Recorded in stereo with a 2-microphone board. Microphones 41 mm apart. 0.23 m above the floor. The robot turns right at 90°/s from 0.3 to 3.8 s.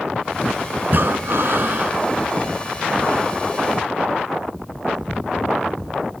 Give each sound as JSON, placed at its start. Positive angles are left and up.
{"t": 0.8, "sound": "breathing", "azimuth_deg": -130, "distance_m": 1.2}